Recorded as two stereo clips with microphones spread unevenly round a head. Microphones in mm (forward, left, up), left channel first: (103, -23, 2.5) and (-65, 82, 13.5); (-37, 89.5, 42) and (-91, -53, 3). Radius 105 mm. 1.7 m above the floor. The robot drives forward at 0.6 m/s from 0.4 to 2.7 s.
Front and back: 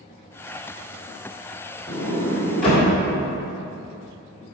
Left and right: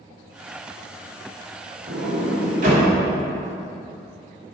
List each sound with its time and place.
1.9 s a sliding door: 85° right, 1.4 m; by 2.9 s 120° right, 1.5 m